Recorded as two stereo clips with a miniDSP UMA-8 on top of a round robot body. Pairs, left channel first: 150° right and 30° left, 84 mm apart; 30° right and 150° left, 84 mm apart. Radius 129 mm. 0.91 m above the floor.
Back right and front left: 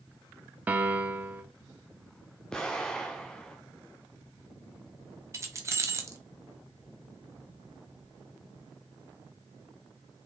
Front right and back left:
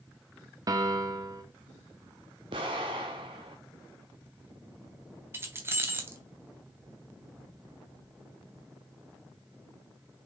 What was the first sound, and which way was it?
A piano, 100° left.